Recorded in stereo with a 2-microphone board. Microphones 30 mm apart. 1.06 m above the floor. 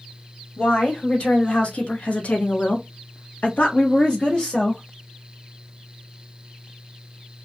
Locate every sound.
0.6 s a woman speaking: 35° left (ahead or behind), 1.7 m; by 4.8 s 20° left (ahead or behind), 1.0 m